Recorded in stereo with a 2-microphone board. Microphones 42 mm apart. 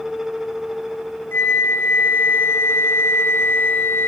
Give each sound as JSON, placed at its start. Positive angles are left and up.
{"t": 1.3, "sound": "a flute", "side_deg": 60, "distance_m": 1.8}